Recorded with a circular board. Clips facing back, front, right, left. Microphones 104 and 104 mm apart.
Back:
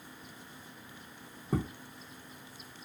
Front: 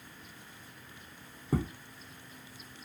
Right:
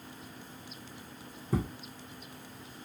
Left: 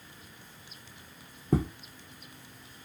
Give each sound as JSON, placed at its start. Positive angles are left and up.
{"t": 1.5, "sound": "footsteps", "azimuth_deg": 85, "distance_m": 1.0}